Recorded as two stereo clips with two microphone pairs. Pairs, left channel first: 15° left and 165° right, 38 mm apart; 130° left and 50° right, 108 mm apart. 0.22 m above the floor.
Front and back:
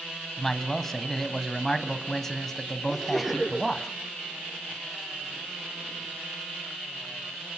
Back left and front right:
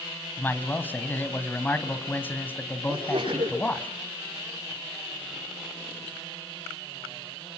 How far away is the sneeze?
About 6 m.